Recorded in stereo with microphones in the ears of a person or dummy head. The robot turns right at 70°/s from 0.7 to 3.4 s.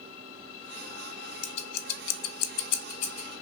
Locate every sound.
1.4 s scissors: 25° left (ahead or behind), 0.5 m; by 3.3 s 20° left (ahead or behind), 0.5 m